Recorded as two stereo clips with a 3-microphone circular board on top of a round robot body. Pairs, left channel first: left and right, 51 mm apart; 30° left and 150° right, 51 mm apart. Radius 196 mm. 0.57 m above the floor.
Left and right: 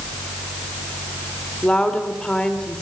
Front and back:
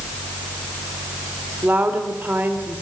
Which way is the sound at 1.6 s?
165° left.